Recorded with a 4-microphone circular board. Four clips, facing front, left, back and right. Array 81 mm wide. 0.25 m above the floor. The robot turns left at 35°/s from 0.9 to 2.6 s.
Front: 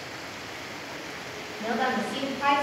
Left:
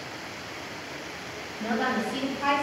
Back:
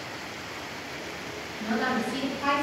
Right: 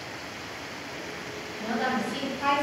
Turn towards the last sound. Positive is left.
turn(degrees=-10)